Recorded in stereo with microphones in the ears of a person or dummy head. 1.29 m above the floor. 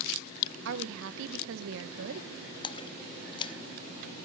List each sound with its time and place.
0.7 s a woman speaking: 65° right (ahead or behind), 1.0 m
2.6 s a splash: 25° left (ahead or behind), 0.5 m